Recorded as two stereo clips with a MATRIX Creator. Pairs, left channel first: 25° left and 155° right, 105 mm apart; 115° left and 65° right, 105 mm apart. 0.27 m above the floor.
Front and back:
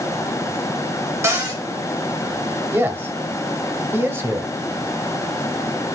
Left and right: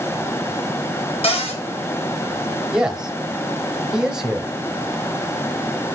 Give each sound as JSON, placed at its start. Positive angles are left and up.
{"t": 1.2, "sound": "a cupboard door", "azimuth_deg": 140, "distance_m": 2.5}
{"t": 2.7, "sound": "a man speaking", "azimuth_deg": -140, "distance_m": 0.9}